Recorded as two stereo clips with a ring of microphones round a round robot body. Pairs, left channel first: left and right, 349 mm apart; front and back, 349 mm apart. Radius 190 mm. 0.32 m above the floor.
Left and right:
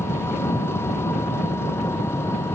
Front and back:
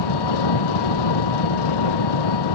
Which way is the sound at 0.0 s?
5° left.